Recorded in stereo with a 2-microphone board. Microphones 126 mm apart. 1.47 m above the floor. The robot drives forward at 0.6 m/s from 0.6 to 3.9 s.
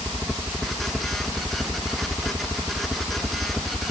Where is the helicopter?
Centre (ahead or behind).